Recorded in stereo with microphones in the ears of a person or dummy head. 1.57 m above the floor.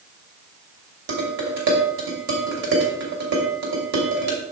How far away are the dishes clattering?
About 2.5 m.